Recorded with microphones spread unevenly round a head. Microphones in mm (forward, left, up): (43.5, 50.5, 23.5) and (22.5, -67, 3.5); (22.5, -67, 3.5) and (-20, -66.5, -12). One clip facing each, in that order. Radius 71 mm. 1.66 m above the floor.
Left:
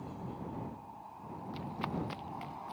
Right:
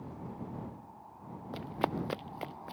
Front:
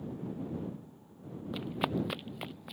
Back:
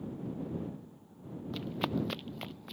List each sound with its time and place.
1.5 s running footsteps: 70° right; by 2.7 s 80° right